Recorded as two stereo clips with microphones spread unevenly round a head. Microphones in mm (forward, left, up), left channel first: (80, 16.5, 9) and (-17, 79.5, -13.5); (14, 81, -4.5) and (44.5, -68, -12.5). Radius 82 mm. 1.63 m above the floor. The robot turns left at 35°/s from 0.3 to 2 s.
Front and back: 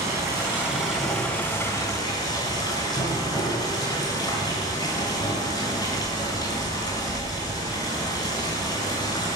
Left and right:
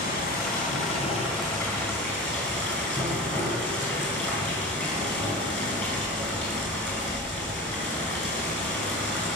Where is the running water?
80° left, 7 m; by 9.4 s 25° left, 7 m.